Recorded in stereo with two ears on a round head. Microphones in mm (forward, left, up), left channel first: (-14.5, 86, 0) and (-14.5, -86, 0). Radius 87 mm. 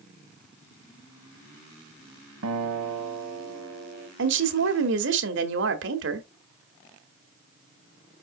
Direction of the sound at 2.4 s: 90° right.